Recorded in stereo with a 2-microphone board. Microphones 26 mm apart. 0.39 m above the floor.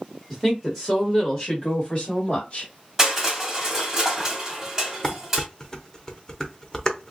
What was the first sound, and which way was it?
A woman speaking, 5° left (ahead or behind).